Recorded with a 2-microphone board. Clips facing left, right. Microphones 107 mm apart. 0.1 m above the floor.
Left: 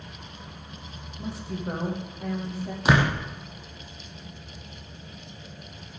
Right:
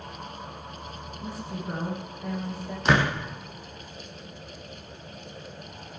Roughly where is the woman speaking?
Left.